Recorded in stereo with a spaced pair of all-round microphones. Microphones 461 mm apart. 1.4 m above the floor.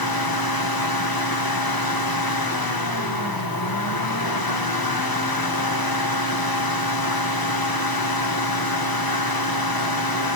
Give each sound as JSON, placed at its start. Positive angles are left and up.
{"t": 0.0, "sound": "a fan", "side_deg": 50, "distance_m": 1.4}